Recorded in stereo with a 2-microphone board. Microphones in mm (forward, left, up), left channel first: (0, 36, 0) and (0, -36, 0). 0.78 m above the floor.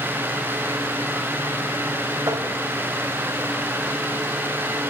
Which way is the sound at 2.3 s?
60° right (ahead or behind).